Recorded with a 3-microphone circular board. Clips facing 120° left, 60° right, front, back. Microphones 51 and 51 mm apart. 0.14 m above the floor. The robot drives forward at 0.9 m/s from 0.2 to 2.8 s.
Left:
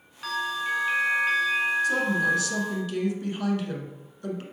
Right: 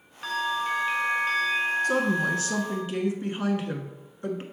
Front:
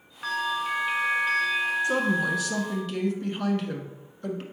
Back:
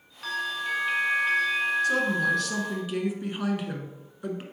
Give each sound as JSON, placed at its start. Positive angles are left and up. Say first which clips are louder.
{"t": 0.2, "sound": "a bell", "louder": "right 1 dB, front 2 dB", "azimuth_deg": 15, "distance_m": 1.6}
{"t": 1.8, "sound": "a woman speaking", "louder": "left 1 dB, even", "azimuth_deg": -50, "distance_m": 1.4}